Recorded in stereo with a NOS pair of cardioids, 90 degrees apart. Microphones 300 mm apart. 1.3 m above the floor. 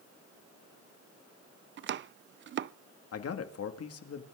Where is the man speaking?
55° left, 2 m.